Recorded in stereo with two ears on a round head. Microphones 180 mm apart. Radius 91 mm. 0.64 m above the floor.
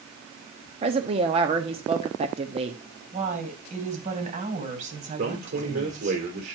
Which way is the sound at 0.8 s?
30° right (ahead or behind).